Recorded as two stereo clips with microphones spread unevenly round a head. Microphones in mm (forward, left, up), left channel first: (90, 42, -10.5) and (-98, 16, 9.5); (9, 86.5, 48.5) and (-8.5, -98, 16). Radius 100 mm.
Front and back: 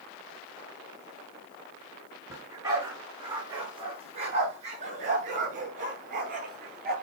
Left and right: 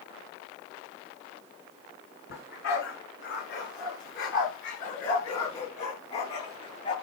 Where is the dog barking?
115° left, 7 m; by 6.9 s 145° left, 9.5 m.